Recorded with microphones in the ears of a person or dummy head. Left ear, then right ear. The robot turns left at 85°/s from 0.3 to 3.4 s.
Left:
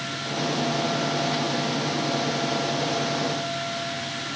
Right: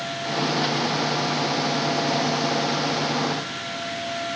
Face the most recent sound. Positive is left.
No sound to turn to.